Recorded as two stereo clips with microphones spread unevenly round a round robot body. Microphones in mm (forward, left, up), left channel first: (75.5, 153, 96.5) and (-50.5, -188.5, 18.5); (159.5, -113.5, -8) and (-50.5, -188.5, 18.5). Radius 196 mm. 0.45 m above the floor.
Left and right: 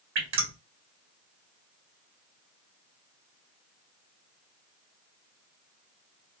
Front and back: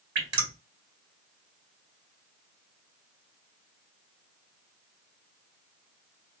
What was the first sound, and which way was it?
Dripping, 135° right.